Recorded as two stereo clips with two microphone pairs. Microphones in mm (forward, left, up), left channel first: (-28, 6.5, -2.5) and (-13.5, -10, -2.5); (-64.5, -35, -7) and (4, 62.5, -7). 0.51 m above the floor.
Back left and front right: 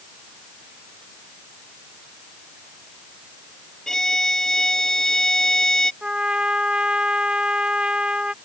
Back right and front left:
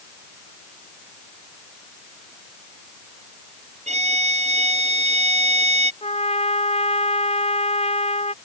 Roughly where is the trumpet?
Right.